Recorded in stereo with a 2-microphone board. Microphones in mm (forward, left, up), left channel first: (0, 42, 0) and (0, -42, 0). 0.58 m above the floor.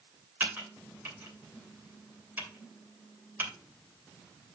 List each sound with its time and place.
0.4 s typing on a keyboard: 25° right (ahead or behind), 2.5 m